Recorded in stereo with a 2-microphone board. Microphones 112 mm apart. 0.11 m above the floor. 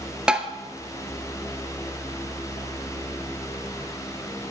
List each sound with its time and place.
0.3 s tapping: 10° right (ahead or behind), 0.6 m